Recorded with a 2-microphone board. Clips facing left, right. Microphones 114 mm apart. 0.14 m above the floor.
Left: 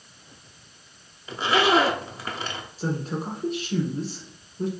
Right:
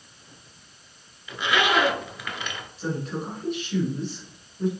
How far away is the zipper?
About 0.6 m.